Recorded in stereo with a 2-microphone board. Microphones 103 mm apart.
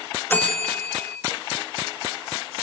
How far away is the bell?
About 2.5 m.